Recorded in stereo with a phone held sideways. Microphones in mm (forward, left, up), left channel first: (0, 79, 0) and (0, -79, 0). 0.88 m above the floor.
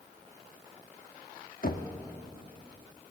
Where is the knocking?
65° left (ahead or behind), 1.6 m.